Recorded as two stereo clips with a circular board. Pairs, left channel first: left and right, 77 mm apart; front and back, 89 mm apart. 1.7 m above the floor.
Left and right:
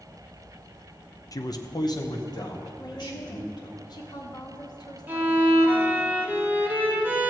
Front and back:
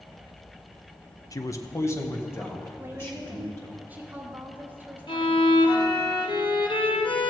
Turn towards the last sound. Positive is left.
turn(degrees=-25)